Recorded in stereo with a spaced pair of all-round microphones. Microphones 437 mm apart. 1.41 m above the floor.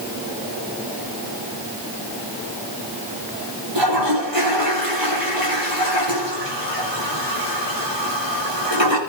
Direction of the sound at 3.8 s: 75° right (ahead or behind).